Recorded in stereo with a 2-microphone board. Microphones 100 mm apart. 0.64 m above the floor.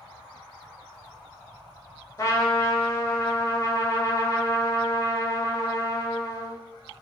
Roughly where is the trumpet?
Left.